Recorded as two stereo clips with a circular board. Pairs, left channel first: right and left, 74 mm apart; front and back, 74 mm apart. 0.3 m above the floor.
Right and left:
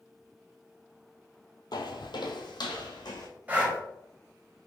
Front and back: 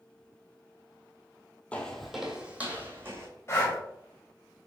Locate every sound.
1.7 s footsteps: 70° right, 0.6 m; by 3.3 s 120° right, 1.2 m
3.5 s breathing: 35° left, 1.1 m